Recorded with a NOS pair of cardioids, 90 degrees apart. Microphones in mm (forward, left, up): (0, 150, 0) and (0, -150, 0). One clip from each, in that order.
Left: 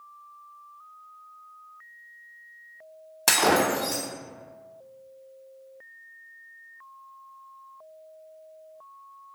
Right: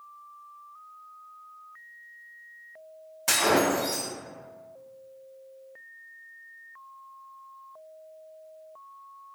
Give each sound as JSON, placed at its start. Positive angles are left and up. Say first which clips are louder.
{"t": 3.3, "sound": "breaking glass", "louder": "left 2 dB", "azimuth_deg": 70, "distance_m": 1.0}